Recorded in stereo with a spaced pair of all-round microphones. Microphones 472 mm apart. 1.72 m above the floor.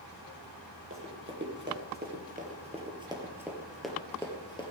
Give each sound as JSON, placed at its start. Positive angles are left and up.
{"t": 0.9, "sound": "running footsteps", "side_deg": -30, "distance_m": 2.5}